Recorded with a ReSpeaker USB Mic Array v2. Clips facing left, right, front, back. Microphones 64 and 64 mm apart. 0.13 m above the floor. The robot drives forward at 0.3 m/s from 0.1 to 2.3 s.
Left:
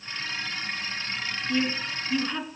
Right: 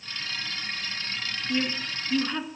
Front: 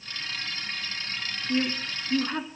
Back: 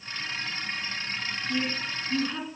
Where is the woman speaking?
5° right, 1.6 m.